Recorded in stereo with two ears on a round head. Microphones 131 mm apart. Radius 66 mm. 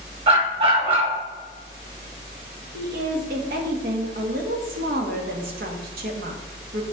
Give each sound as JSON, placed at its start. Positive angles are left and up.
{"t": 0.3, "sound": "a dog barking", "side_deg": -40, "distance_m": 2.5}
{"t": 2.7, "sound": "a woman speaking", "side_deg": -65, "distance_m": 1.6}